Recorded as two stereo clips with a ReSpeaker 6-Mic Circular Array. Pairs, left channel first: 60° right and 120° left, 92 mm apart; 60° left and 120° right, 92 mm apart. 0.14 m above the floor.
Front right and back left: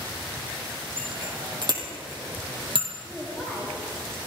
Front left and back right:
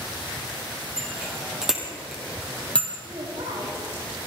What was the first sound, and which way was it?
A bicycle bell, 165° left.